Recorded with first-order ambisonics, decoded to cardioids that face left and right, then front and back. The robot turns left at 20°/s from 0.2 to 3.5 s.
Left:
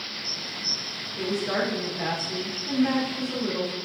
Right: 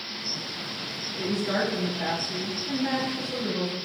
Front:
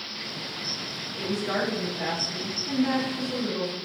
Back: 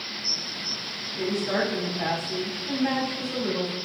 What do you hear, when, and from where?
1.2 s a woman speaking: 45° left, 0.8 m; by 3.7 s straight ahead, 0.8 m